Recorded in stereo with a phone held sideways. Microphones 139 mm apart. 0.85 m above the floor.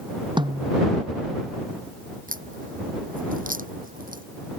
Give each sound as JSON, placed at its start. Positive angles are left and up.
{"t": 0.4, "sound": "a snare drum", "side_deg": -35}
{"t": 2.3, "sound": "a crack", "side_deg": -85}